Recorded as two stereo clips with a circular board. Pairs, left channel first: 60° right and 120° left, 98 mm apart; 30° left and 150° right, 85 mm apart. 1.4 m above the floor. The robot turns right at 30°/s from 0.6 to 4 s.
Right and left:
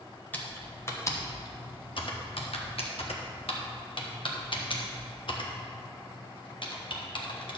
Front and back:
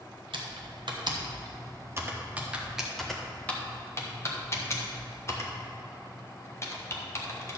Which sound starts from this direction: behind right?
Typing on a keyboard, at 0.3 s.